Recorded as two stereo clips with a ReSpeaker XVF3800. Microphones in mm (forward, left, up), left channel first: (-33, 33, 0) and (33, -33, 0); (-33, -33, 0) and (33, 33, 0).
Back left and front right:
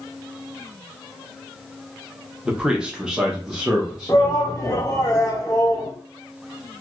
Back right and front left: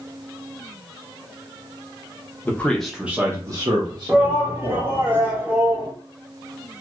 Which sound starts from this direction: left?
A shout, at 4.1 s.